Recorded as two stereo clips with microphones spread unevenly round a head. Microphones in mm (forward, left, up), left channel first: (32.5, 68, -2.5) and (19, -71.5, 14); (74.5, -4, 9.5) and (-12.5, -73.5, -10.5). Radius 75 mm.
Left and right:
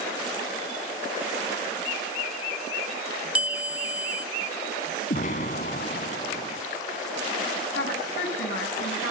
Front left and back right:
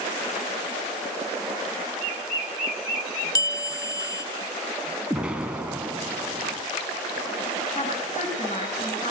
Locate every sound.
3.4 s a bell: 15° right, 2 m
5.1 s an explosion: 130° left, 1.8 m
7.8 s a woman speaking: 95° left, 8.5 m